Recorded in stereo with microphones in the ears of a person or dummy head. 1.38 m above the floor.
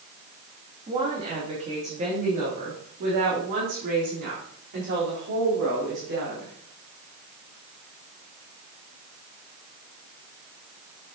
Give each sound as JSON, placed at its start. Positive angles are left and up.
{"t": 0.9, "sound": "a woman speaking", "side_deg": -25, "distance_m": 2.5}